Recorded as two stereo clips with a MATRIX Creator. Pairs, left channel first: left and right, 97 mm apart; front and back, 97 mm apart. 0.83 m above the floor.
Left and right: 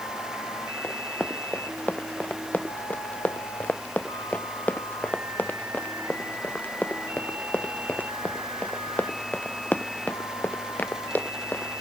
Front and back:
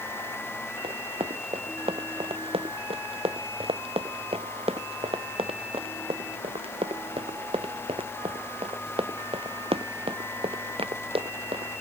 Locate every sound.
0.8 s running footsteps: 165° left; by 11.7 s 160° left